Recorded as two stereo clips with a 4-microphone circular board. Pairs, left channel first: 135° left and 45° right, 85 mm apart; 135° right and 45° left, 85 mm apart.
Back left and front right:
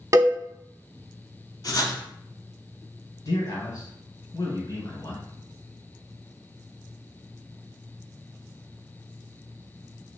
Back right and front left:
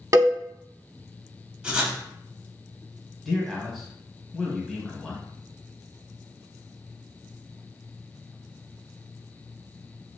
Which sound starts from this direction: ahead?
A cowbell, at 0.1 s.